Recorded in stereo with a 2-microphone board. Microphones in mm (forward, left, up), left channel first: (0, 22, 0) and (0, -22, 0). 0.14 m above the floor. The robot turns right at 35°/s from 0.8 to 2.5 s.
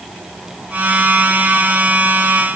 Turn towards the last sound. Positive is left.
No sound to turn to.